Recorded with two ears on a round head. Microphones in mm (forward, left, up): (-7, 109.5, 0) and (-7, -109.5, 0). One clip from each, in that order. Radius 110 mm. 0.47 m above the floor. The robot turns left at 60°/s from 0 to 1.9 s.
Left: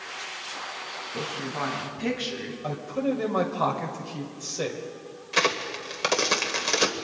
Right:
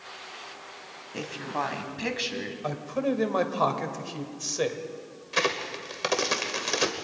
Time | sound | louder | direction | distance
1.1 | a woman speaking | right 1 dB | 70° right | 3 m
2.6 | a man speaking | left 1 dB | 25° right (ahead or behind) | 1.9 m
5.3 | a crack | left 3 dB | 5° left (ahead or behind) | 1.3 m